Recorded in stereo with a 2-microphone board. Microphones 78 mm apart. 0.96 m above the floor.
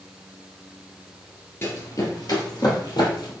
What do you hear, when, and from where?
1.6 s running footsteps: 30° left (ahead or behind), 1.0 m; by 3.3 s 70° left (ahead or behind), 2.5 m